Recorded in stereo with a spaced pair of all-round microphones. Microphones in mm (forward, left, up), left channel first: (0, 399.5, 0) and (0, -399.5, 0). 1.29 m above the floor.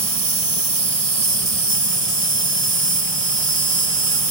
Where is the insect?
30° right (ahead or behind).